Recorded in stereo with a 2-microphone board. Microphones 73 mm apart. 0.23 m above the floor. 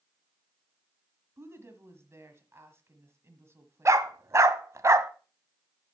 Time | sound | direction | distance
1.4 | a woman speaking | 40° right (ahead or behind) | 1.3 m
3.9 | a dog barking | 45° right (ahead or behind) | 0.5 m